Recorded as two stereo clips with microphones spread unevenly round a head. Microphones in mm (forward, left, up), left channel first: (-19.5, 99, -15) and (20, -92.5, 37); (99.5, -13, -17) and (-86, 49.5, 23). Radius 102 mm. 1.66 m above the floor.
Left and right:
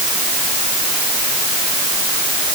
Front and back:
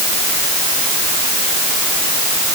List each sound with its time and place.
Only background noise.